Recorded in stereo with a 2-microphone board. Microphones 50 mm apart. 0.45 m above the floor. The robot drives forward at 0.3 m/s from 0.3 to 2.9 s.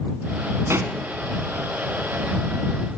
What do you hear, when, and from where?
0.7 s a pop: 60° right (ahead or behind), 1.5 m; by 0.9 s 65° right (ahead or behind), 1.4 m